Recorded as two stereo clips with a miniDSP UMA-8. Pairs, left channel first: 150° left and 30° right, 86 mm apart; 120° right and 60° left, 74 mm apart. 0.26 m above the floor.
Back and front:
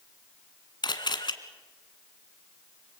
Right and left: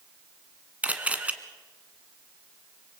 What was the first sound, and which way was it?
A camera shutter, 130° left.